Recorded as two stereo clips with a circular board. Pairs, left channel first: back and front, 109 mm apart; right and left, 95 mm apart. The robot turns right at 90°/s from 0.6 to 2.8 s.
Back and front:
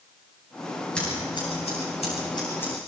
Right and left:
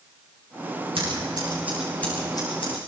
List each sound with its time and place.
0.9 s scissors: 100° left, 9.5 m; by 2.8 s 95° right, 9.5 m